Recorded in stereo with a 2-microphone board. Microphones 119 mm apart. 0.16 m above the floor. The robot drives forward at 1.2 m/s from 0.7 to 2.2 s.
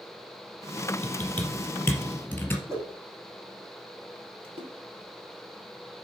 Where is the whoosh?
20° right (ahead or behind), 4.5 m.